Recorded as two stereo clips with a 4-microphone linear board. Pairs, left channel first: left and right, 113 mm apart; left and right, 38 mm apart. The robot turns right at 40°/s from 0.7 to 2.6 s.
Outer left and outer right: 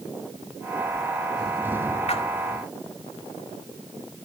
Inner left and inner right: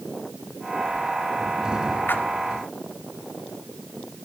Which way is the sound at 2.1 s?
65° left (ahead or behind).